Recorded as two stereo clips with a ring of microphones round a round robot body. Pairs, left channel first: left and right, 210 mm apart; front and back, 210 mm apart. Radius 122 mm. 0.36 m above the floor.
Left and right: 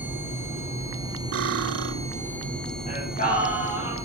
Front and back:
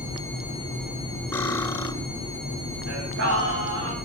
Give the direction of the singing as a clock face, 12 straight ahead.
7 o'clock.